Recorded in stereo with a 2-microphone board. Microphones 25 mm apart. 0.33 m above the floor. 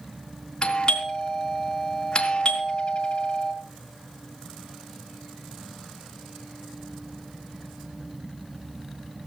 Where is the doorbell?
30° left (ahead or behind), 4 m.